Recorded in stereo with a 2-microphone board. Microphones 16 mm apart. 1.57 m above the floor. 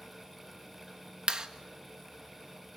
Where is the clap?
45° right (ahead or behind), 1.7 m.